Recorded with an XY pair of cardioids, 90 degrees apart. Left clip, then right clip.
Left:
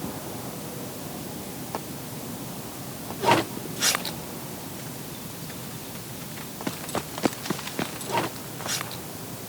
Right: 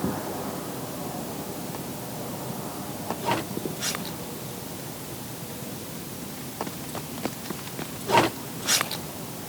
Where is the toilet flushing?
No toilet flushing in this recording.